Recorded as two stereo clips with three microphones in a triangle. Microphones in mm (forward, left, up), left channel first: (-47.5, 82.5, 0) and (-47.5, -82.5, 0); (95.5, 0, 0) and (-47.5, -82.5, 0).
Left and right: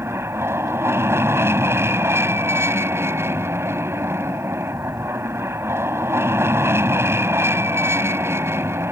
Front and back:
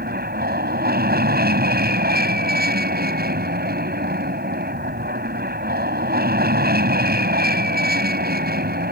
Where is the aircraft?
165° right.